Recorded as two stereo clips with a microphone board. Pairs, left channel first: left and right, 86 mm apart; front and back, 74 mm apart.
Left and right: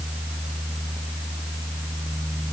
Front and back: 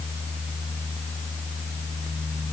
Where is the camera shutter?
I don't hear a camera shutter.